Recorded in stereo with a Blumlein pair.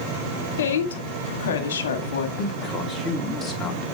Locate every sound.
0.6 s a woman speaking: 60° left, 1.7 m
2.4 s a man speaking: 10° left, 2.5 m